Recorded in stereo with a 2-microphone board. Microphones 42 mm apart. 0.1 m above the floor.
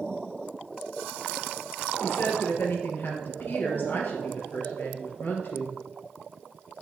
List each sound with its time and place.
2.0 s a woman speaking: 50° left (ahead or behind), 2.5 m